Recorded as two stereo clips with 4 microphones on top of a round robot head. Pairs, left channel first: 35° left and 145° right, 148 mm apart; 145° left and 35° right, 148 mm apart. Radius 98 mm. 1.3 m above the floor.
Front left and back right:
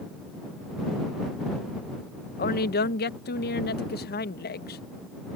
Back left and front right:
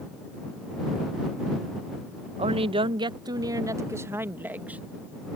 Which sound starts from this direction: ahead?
A woman speaking, at 2.4 s.